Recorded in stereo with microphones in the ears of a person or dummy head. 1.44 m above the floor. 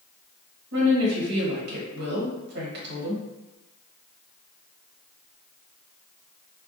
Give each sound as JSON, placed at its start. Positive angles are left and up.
{"t": 0.7, "sound": "a woman speaking", "side_deg": -65, "distance_m": 1.4}